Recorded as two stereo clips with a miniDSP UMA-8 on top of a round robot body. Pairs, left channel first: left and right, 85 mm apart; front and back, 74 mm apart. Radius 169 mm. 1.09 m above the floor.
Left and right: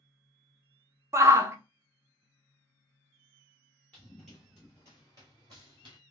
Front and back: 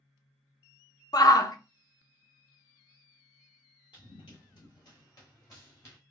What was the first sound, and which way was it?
A shout, 30° right.